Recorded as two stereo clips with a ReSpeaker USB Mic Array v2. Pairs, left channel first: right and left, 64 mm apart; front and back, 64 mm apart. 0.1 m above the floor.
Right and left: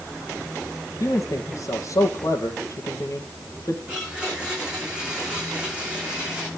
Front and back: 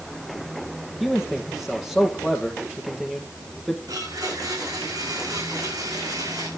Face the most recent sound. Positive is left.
turn(degrees=165)